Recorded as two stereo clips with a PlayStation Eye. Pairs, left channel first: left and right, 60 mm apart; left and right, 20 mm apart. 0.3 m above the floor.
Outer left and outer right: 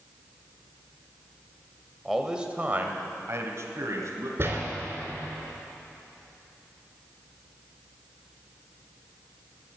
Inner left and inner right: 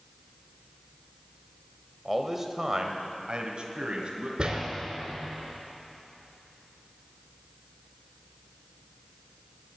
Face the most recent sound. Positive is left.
turn(degrees=-40)  # may be behind; listen again after turning